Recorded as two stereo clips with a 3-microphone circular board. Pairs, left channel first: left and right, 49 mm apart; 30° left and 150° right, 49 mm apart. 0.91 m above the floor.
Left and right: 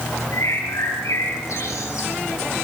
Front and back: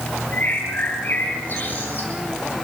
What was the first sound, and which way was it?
A bird, 80° left.